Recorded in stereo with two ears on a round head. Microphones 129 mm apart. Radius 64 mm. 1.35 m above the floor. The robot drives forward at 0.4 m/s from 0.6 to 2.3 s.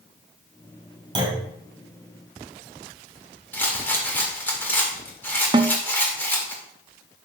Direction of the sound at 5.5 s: 35° right (ahead or behind).